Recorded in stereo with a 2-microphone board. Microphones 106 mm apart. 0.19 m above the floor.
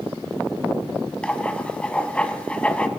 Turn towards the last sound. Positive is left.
turn(degrees=10)  # may be behind; listen again after turning